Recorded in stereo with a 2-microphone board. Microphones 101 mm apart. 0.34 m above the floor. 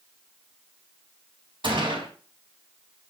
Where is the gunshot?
60° right (ahead or behind), 3 m.